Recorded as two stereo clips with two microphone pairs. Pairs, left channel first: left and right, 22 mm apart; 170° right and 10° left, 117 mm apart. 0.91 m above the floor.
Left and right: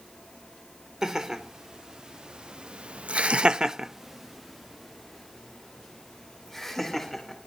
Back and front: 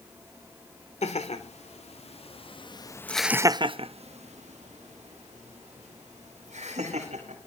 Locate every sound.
1.0 s laughter: 155° right, 2.5 m; by 7.4 s 10° left, 4.5 m